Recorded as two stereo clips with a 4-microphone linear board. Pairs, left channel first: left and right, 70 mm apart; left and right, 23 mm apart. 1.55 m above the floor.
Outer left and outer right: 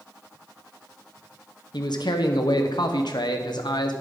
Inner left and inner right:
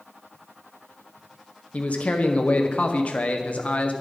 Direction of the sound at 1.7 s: 75° left (ahead or behind).